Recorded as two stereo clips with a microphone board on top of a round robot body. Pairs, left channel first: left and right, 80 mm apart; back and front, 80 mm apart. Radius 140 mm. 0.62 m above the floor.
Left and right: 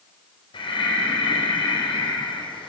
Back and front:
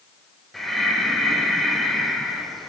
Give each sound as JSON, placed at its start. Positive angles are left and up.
{"t": 0.5, "sound": "breathing", "azimuth_deg": 95, "distance_m": 4.0}